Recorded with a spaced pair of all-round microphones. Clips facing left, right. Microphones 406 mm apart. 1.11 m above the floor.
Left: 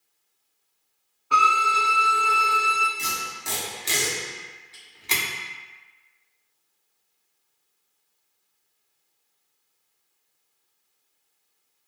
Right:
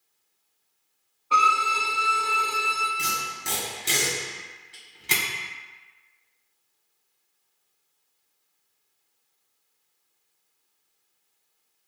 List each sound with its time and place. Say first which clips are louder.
1.3 s a violin: left 1 dB; 30° left (ahead or behind), 0.5 m
3.0 s tape being pulled: right 1 dB; 25° right (ahead or behind), 0.9 m